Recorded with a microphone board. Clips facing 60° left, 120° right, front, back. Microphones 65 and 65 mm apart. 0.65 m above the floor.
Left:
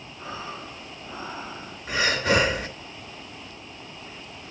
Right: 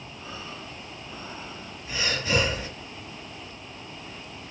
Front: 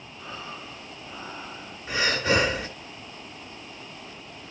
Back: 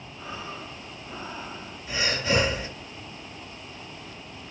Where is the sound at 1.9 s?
40° left, 3 m.